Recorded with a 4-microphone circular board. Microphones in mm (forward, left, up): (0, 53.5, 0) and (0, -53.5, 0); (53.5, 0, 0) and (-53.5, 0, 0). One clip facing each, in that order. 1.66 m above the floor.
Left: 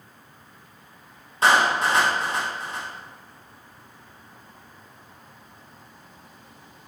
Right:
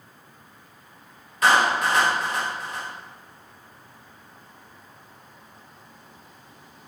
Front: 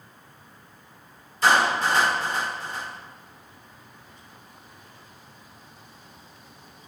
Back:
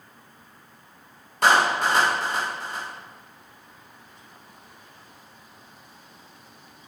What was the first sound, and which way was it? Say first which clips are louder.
A clap: even, back 1 dB; 150° left.